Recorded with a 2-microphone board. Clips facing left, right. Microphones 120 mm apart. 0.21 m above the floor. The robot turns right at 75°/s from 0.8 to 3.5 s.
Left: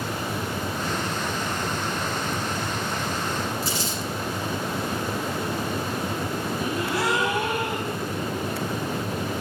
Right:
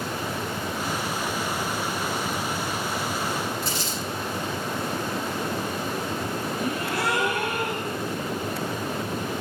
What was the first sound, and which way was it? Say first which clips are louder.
Crumpling: left 1 dB; 55° right (ahead or behind).